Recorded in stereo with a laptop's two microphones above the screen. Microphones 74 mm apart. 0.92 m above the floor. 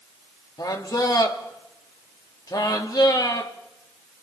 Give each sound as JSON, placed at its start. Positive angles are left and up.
{"t": 0.6, "sound": "a man speaking", "side_deg": 60, "distance_m": 2.5}